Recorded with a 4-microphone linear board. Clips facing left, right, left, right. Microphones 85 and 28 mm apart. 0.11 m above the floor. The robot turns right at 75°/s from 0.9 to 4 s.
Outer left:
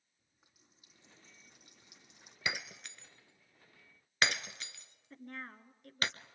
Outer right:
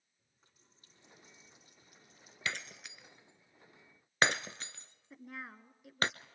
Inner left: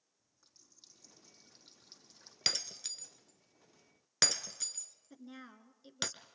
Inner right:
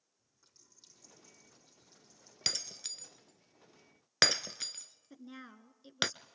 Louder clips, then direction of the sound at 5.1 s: Even, inner right 1 dB; 5° right (ahead or behind).